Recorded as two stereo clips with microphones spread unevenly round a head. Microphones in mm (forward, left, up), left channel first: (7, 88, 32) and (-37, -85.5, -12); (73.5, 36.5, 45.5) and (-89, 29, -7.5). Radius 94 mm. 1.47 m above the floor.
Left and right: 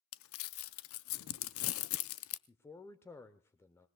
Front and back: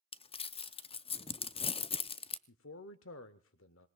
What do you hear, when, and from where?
0.1 s crumpling: 60° left, 0.6 m
2.5 s a man speaking: 5° right, 0.7 m